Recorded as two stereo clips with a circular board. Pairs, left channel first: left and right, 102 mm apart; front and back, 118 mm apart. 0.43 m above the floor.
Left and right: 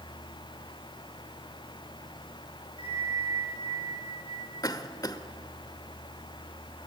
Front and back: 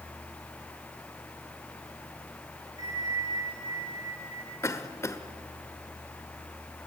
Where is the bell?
125° right, 9.5 m.